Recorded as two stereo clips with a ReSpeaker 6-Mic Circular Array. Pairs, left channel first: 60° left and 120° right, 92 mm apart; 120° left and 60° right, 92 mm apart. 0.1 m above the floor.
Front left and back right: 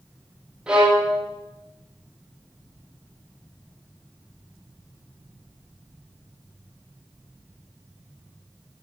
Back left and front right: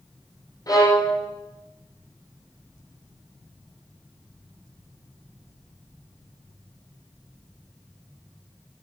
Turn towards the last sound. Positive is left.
turn(degrees=160)